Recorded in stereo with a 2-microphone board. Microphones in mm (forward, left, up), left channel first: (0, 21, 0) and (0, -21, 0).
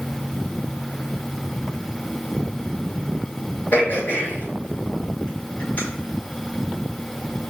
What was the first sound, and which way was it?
Throat clearing, 50° left (ahead or behind).